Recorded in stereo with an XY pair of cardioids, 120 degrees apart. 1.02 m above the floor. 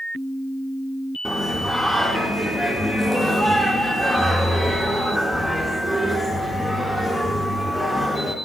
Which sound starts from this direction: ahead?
Singing, at 1.2 s.